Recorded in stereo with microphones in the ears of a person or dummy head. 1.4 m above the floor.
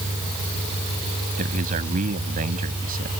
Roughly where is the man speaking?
Right.